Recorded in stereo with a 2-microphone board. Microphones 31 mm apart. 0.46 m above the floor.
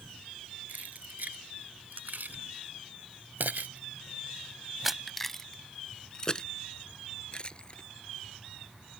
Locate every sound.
0.7 s keys jangling: 60° right (ahead or behind); by 7.8 s 30° left (ahead or behind)